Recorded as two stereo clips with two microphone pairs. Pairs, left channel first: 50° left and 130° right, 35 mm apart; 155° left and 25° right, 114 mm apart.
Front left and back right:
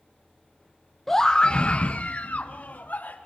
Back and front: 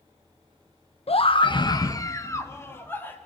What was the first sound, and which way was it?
A scream, 130° left.